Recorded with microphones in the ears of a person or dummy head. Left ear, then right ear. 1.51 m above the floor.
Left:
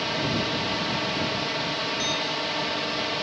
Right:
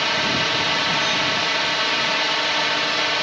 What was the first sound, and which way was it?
A drone, 45° right (ahead or behind).